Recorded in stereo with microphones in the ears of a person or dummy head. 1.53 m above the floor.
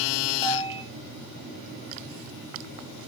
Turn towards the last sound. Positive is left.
turn(degrees=25)  # may be behind; listen again after turning